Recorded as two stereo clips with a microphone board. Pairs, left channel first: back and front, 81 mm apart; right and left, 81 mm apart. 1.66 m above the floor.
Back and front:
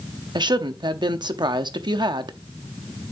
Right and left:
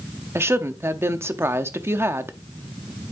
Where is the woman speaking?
30° left, 0.8 m.